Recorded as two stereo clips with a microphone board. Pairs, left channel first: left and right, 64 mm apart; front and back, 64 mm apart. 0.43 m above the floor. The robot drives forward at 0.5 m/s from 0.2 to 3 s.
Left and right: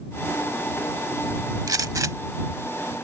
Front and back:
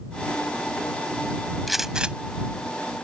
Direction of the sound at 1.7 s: 90° right.